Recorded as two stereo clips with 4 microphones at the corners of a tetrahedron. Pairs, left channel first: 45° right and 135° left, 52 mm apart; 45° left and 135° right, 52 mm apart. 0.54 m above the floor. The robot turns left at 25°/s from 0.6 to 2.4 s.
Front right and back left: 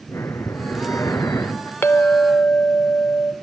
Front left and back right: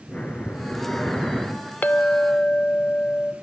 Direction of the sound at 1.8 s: 5° right.